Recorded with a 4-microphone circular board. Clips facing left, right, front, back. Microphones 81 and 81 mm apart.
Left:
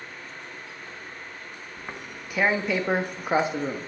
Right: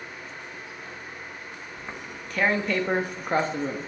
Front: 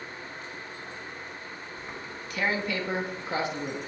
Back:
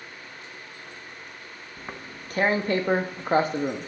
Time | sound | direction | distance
1.8 | tearing paper | 170° left | 1.0 m